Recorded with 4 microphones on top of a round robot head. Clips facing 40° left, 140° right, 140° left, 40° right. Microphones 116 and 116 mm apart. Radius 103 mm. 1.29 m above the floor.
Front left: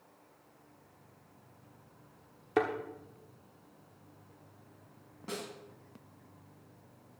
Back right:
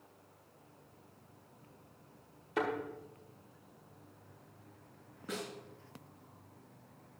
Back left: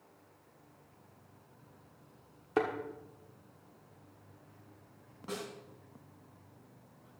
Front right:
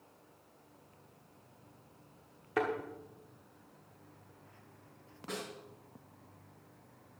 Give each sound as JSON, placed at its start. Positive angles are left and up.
{"t": 2.6, "sound": "a thud", "azimuth_deg": 75, "distance_m": 1.2}
{"t": 5.3, "sound": "a snare drum", "azimuth_deg": 55, "distance_m": 3.5}